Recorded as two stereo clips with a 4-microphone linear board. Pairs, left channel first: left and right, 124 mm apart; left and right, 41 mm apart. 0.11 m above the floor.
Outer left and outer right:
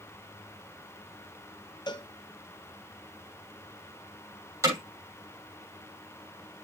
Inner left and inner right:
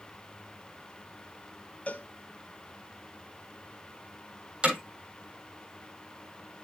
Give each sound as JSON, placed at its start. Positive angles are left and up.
{"t": 1.9, "sound": "a cowbell", "side_deg": 40, "distance_m": 0.7}
{"t": 4.6, "sound": "hammering", "side_deg": -25, "distance_m": 7.5}